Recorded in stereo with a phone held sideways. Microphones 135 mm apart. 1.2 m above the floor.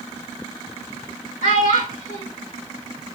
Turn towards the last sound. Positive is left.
turn(degrees=80)